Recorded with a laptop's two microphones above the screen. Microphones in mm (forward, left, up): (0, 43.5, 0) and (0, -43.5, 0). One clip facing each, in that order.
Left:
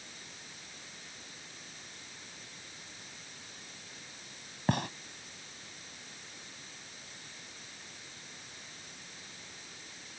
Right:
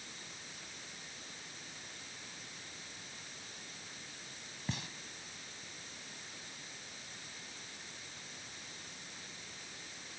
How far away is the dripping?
I don't hear dripping.